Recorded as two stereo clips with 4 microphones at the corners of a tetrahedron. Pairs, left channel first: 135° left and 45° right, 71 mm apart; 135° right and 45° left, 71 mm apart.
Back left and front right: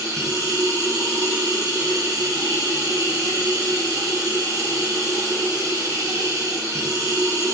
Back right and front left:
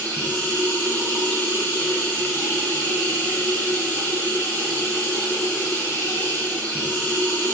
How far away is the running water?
About 2.5 m.